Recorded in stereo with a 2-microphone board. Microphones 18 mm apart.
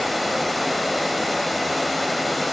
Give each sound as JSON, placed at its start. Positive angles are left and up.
{"t": 0.0, "sound": "running water", "side_deg": 5, "distance_m": 1.3}